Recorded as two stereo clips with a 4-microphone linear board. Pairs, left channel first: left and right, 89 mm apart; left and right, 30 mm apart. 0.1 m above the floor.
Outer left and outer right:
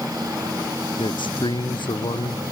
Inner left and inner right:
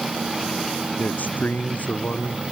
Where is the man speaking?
65° left (ahead or behind).